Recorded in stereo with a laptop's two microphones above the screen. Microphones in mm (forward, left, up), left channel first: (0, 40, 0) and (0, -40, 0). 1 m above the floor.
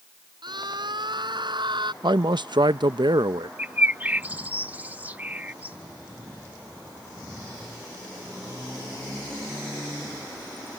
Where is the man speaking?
65° right (ahead or behind).